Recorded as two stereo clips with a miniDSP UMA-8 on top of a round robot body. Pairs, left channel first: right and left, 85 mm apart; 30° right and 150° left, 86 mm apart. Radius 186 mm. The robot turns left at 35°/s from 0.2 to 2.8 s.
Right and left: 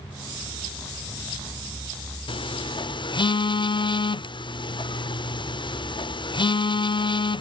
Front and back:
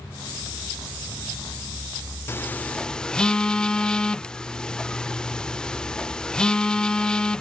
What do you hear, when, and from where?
2.3 s a phone buzzing: 90° right; by 7.4 s 110° right